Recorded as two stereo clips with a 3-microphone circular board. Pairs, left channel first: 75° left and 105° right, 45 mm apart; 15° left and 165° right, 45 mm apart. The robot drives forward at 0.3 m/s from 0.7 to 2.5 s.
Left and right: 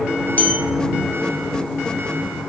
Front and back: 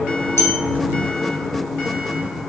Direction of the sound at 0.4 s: 25° left.